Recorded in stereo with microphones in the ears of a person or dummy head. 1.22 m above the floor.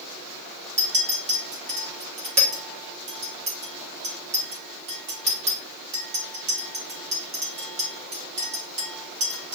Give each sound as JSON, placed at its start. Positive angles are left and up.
{"t": 0.8, "sound": "a clink", "side_deg": -30, "distance_m": 1.1}